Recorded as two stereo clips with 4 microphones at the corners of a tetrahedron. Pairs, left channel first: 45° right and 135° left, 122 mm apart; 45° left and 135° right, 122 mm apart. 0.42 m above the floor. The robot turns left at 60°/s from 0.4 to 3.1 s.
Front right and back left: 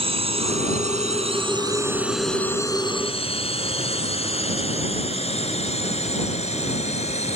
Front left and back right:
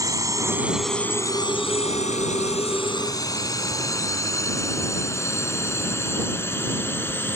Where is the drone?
165° left; by 7.4 s 25° right.